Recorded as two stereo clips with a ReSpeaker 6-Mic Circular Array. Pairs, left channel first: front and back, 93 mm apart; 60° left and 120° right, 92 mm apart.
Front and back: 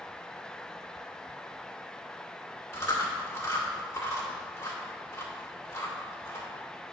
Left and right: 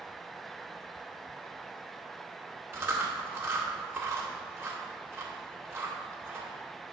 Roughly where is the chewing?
Ahead right.